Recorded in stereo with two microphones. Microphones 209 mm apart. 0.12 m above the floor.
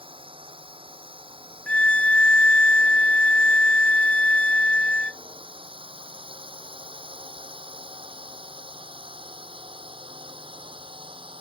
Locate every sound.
0.0 s a drone: 25° right (ahead or behind)
1.7 s a violin: 5° left (ahead or behind)